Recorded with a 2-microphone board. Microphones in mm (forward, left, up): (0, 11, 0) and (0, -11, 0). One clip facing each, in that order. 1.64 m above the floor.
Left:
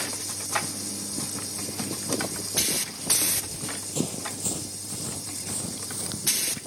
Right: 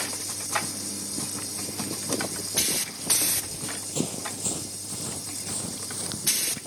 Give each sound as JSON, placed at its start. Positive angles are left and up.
{"t": 3.3, "sound": "running footsteps", "side_deg": -5}